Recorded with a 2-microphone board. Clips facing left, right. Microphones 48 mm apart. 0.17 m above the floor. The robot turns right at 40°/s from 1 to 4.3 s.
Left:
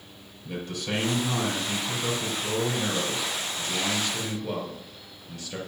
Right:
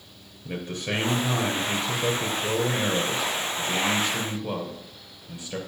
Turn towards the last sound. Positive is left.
turn(degrees=-10)